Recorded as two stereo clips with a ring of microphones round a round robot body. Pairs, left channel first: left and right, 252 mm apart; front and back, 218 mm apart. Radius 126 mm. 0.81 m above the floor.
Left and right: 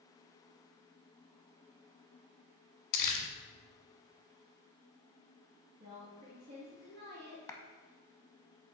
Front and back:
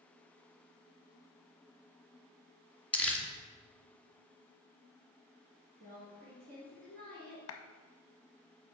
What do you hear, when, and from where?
2.9 s crumpling: 85° left, 1.1 m
5.8 s a woman speaking: 135° right, 1.6 m
7.5 s a clap: 10° left, 0.6 m